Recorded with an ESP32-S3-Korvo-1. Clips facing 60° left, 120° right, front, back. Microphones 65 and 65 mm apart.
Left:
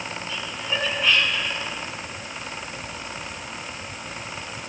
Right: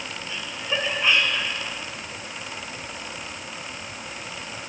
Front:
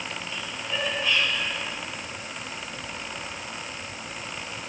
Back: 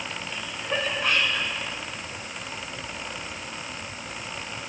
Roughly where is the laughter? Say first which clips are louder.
Right 1 dB, back 5 dB; behind.